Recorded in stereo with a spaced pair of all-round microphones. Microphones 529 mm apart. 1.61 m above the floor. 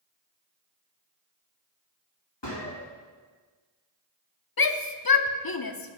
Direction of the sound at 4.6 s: 45° left (ahead or behind).